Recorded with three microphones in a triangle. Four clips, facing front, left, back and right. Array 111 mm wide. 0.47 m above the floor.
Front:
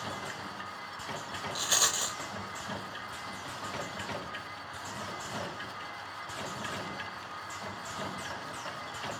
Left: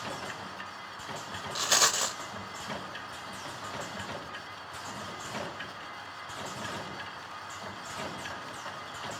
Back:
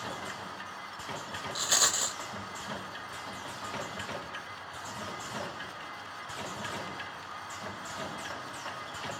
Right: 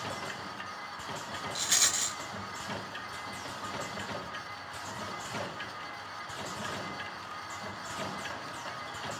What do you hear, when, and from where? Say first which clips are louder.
1.6 s a rattle: left 7 dB, back 1 dB; 95° left, 1.2 m